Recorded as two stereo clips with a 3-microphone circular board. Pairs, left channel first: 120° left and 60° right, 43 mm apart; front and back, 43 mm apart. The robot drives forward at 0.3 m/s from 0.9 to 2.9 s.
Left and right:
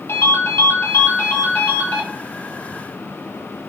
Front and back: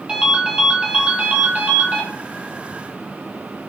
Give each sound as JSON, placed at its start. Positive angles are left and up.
{"t": 0.1, "sound": "a ringtone", "azimuth_deg": 110, "distance_m": 0.9}